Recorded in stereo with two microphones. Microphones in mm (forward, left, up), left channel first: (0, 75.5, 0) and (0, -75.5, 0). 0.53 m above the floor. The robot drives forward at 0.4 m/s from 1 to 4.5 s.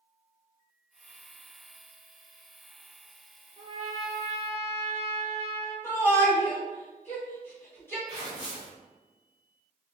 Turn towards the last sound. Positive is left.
turn(degrees=-30)  # may be behind; listen again after turning